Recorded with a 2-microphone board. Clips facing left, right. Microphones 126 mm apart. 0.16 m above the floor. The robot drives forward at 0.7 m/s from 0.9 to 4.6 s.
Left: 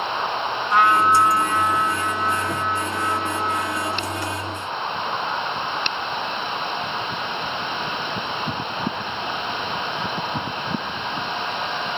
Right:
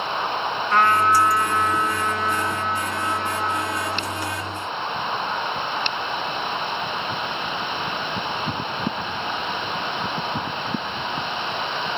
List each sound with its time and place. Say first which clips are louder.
0.7 s a trumpet: left 1 dB; 10° left (ahead or behind), 0.9 m; by 4.1 s 5° left (ahead or behind), 3 m